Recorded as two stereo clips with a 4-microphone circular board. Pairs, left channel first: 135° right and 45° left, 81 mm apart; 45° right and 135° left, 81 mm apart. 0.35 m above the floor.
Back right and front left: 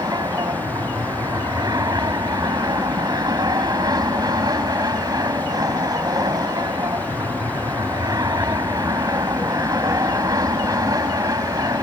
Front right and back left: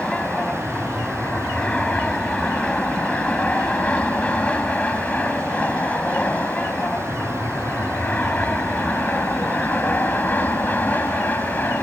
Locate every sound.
0.0 s an aircraft: 30° left; by 11.8 s 15° left